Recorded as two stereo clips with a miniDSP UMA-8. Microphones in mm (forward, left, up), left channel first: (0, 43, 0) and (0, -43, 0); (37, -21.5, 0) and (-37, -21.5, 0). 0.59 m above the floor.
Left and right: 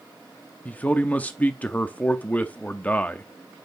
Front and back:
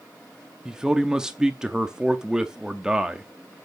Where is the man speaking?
115° left, 0.6 m.